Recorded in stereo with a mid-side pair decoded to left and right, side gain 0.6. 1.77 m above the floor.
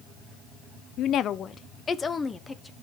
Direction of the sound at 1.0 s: 65° left.